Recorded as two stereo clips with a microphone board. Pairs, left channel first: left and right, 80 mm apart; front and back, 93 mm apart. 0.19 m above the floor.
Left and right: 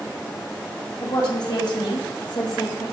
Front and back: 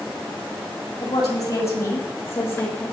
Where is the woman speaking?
50° left, 4.5 m; by 2.8 s 75° left, 5.5 m.